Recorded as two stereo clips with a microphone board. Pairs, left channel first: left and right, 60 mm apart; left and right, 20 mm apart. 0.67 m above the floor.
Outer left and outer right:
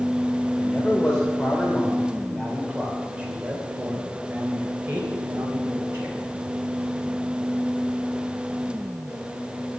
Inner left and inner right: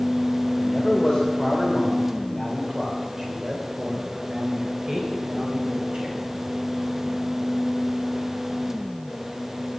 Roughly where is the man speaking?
Centre.